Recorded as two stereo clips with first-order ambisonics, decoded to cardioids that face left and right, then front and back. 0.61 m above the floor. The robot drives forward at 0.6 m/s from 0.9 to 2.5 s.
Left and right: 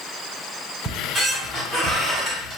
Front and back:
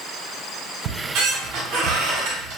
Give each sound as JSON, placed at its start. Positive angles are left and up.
{"t": 0.8, "sound": "a squeak", "azimuth_deg": -170, "distance_m": 1.4}